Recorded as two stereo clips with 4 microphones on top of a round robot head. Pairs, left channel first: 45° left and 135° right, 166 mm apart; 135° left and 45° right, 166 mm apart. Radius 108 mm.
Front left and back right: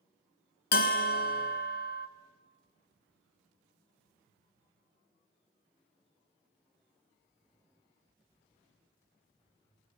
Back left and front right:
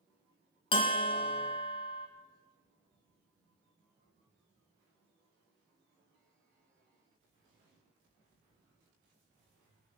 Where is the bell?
75° left, 0.7 m.